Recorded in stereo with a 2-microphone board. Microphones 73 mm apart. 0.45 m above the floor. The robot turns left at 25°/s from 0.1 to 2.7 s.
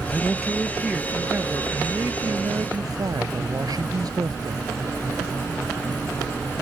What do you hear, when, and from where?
0.1 s a man speaking: 5° left; by 4.7 s 60° right